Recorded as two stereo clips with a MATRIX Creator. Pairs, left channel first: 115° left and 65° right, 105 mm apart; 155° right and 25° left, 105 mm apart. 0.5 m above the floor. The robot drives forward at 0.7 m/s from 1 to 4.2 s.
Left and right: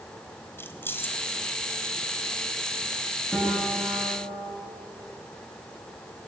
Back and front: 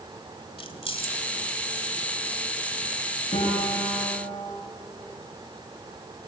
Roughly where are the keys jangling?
Behind.